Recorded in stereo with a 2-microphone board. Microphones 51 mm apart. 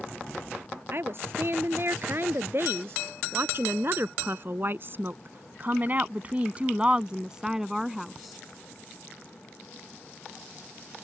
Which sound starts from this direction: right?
A woman speaking, at 0.9 s.